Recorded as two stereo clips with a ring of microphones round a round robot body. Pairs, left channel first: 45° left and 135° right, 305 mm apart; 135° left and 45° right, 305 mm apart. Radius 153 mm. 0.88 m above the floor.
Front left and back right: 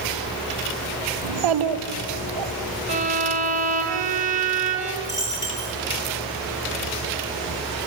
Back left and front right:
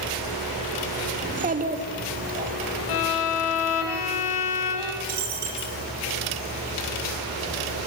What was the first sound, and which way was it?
A child speaking, 115° right.